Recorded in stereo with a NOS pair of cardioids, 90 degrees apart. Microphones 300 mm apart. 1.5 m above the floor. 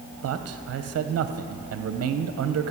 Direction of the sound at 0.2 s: 55° right.